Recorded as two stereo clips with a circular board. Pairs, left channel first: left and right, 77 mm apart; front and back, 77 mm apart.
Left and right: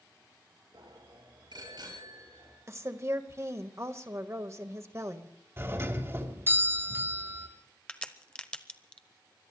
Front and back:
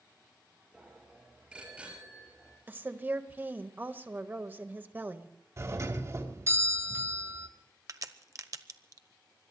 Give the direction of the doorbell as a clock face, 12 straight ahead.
5 o'clock.